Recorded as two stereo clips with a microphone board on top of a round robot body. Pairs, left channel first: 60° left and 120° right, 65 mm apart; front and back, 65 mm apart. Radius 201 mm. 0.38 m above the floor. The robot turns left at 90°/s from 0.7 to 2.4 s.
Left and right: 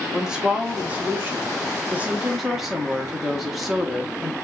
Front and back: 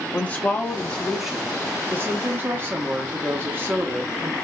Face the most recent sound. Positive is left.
turn(degrees=160)